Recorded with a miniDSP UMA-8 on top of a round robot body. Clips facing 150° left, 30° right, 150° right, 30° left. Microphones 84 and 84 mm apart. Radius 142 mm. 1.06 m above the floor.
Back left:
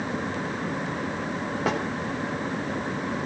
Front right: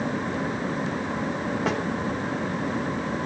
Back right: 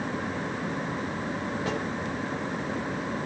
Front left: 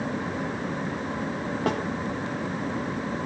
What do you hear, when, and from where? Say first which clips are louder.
1.7 s a snare drum: back left 1 dB, front left 6 dB; 60° left, 3.5 m